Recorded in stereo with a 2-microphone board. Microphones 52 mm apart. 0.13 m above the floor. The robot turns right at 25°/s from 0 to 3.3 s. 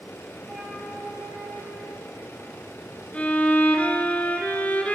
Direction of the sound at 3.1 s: 25° left (ahead or behind).